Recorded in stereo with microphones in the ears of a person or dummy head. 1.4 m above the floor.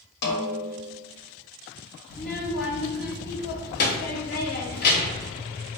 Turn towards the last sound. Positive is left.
turn(degrees=55)  # may be behind; listen again after turning